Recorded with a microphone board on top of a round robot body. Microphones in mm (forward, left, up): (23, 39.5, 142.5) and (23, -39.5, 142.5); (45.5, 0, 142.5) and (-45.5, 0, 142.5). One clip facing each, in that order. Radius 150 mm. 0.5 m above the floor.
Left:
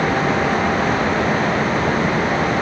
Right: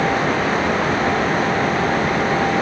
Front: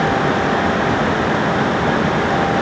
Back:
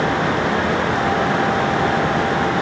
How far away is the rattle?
No rattle in this recording.